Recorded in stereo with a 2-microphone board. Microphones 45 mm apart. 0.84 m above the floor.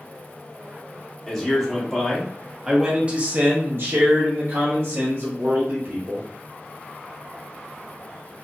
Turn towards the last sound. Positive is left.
turn(degrees=-55)  # may be behind; listen again after turning